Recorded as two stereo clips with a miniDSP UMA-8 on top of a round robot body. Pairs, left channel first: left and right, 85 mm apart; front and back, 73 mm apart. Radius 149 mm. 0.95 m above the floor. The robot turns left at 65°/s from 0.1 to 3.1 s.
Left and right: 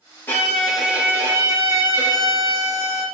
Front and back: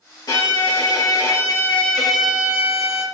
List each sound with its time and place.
0.3 s a violin: 30° left, 2.0 m; by 3.0 s 150° right, 2.0 m